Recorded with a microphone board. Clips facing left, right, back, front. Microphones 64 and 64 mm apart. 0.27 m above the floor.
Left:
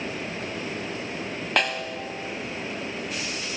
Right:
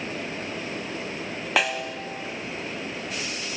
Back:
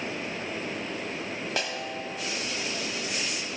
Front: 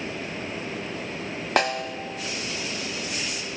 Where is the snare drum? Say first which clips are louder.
Right 1 dB, front 11 dB; 5° right, 0.5 m.